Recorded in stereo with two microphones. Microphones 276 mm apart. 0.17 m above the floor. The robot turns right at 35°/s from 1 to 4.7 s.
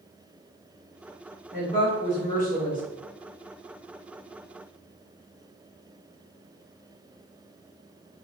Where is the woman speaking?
100° right, 1.9 m; by 2.8 s 55° right, 1.9 m.